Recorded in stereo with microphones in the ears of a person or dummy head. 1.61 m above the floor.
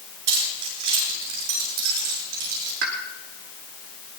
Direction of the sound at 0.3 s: 85° right.